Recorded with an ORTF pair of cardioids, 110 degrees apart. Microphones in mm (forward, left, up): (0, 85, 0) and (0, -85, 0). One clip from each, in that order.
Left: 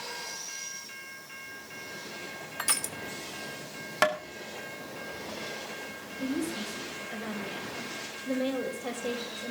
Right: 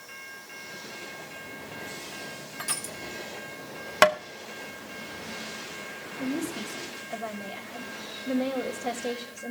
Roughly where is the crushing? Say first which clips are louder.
Left 3 dB; ahead left.